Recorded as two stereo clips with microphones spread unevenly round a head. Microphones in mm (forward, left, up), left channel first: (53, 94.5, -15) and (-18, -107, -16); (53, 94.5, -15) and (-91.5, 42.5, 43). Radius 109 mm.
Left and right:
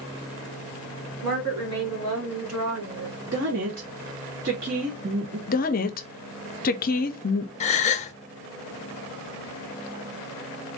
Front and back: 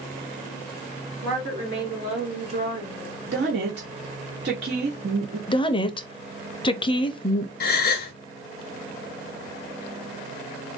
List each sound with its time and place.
1.2 s a woman speaking: 105° right, 3 m; by 3.2 s 90° right, 2.0 m
3.3 s a woman speaking: 150° right, 1.4 m
5.5 s a woman speaking: 35° left, 0.6 m
7.6 s a gasp: 30° left, 0.8 m